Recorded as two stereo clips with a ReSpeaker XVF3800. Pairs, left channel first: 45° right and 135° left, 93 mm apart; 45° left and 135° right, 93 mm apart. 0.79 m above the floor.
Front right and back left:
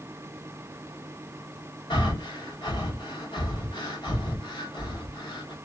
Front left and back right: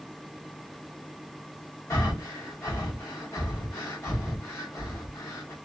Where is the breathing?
10° right, 1.0 m.